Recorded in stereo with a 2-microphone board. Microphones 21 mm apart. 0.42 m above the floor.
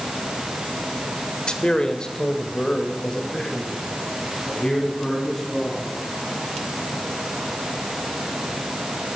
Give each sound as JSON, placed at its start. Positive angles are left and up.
{"t": 1.5, "sound": "a man speaking", "side_deg": 45, "distance_m": 1.2}